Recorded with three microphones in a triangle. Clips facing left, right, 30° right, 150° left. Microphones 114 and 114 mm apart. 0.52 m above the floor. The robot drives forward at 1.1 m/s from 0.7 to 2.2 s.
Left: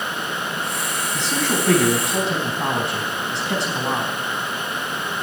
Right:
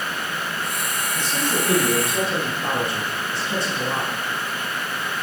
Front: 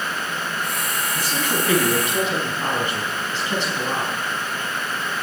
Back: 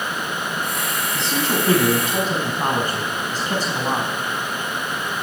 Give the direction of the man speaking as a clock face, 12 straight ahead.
9 o'clock.